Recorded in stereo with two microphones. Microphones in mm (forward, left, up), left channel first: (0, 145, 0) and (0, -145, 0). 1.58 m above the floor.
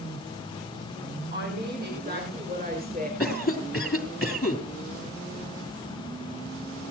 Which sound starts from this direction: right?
A woman speaking, at 1.3 s.